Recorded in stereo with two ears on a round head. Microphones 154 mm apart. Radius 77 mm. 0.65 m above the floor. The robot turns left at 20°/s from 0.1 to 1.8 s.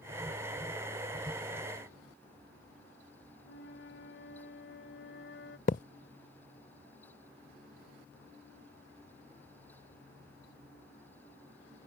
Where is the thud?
45° left (ahead or behind).